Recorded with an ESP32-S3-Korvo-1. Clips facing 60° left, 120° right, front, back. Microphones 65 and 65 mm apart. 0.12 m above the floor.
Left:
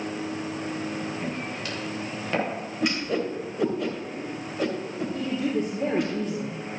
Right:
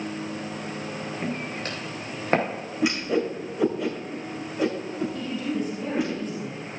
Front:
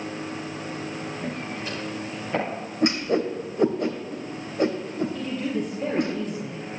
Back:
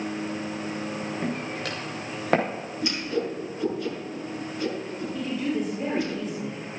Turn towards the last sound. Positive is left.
turn(degrees=100)